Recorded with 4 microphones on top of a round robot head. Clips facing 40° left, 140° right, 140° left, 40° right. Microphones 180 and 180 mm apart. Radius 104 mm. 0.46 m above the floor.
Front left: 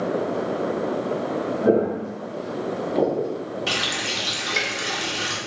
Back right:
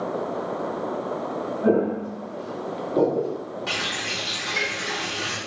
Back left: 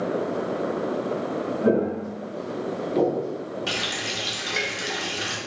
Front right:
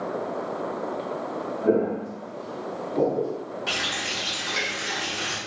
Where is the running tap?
90° left, 0.9 m.